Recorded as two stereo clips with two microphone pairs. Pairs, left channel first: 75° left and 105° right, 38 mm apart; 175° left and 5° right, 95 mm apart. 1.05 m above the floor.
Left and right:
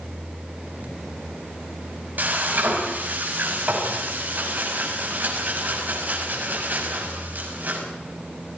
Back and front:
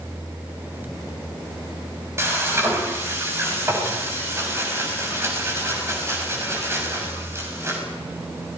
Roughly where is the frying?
Right.